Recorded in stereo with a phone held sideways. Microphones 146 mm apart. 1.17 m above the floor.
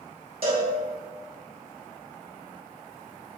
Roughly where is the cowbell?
Right.